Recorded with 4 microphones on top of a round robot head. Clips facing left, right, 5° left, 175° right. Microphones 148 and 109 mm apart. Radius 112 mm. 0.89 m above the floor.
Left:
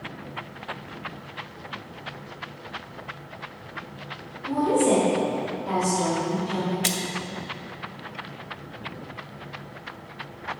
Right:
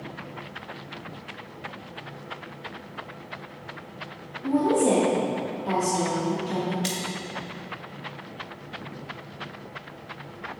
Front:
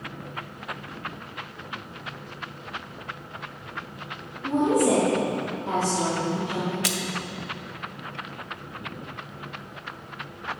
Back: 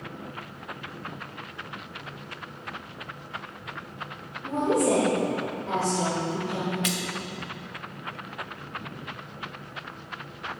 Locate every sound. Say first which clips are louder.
4.4 s a woman speaking: even, front 2 dB; 65° right, 2.5 m
6.8 s a splash: left 1 dB, even; 55° left, 0.9 m